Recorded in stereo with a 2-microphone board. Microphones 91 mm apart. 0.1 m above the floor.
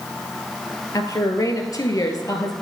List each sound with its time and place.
0.9 s a woman speaking: 40° left (ahead or behind), 1.7 m